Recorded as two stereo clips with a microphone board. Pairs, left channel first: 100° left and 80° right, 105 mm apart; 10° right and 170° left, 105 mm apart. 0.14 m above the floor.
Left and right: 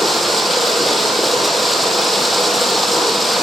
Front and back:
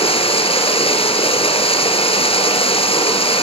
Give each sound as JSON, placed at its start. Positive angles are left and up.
{"t": 0.0, "sound": "running water", "azimuth_deg": 10, "distance_m": 3.0}